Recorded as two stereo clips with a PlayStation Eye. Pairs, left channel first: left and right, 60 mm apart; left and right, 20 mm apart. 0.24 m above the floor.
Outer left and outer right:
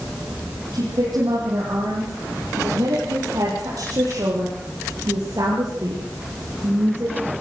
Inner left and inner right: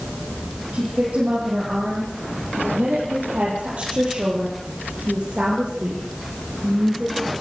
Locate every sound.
0.7 s a woman speaking: 80° right, 7 m; by 7.3 s 55° right (ahead or behind), 4.5 m